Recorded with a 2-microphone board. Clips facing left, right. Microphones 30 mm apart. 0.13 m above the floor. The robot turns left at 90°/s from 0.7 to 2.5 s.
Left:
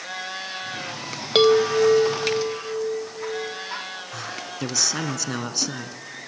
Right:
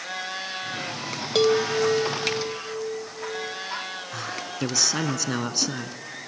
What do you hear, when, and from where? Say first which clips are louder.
1.4 s a chime: left 4 dB; 145° left, 0.9 m; by 3.6 s 40° left, 0.9 m
4.1 s a man speaking: right 1 dB; 5° right (ahead or behind), 1.1 m